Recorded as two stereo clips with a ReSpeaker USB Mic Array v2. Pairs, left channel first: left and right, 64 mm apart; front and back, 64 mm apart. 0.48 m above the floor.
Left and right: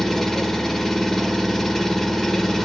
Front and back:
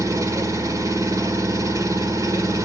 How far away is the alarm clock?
No alarm clock in this recording.